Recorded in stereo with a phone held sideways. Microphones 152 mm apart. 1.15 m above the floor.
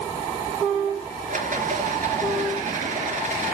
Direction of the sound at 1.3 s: 60° right (ahead or behind).